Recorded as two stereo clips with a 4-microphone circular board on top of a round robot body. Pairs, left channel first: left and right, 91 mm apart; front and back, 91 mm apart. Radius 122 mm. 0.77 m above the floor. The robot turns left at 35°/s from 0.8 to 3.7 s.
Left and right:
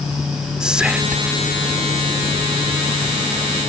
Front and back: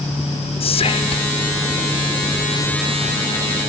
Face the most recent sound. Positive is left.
turn(degrees=-110)